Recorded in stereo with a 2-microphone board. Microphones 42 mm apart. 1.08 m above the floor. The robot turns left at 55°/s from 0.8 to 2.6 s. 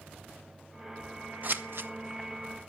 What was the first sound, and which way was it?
Scissors, 45° right (ahead or behind).